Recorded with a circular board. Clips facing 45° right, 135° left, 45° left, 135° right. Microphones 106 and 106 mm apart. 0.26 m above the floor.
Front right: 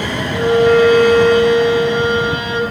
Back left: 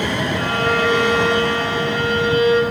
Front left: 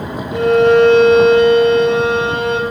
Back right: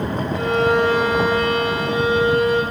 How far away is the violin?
About 4.5 m.